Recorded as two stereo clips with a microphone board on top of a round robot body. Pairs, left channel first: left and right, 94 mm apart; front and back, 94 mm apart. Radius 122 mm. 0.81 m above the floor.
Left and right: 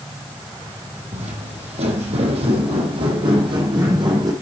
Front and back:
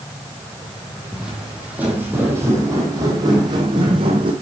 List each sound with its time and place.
1.1 s footsteps: 95° right, 2.5 m; by 4.3 s 145° right, 2.5 m